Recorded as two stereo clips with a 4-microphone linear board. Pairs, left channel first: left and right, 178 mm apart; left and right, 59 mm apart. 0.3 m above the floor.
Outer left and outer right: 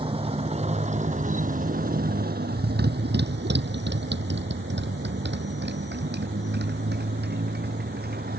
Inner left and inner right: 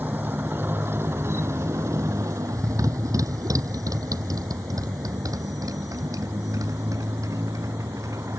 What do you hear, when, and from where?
0.0 s a motorcycle: 30° right (ahead or behind); by 8.4 s 65° right (ahead or behind)